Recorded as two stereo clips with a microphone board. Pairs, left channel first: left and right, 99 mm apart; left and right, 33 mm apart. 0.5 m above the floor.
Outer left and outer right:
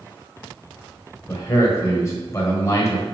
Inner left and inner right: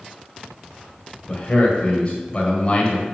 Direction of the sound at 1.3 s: 30° left (ahead or behind).